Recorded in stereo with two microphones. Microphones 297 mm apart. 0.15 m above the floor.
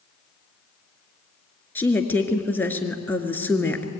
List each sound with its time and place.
1.8 s a woman speaking: 5° left (ahead or behind), 2 m